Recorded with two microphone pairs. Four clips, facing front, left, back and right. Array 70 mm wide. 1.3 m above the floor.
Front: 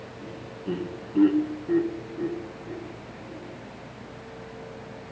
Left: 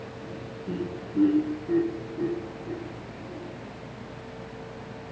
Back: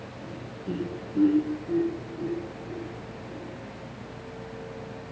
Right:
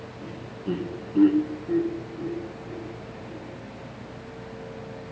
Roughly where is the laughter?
Ahead right.